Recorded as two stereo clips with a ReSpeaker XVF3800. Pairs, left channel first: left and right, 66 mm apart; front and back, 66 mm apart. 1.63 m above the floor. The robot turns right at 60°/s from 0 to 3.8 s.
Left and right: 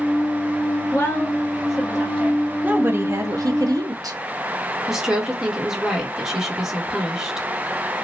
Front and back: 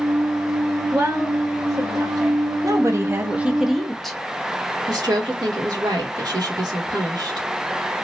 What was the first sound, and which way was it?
A woman speaking, 115° left.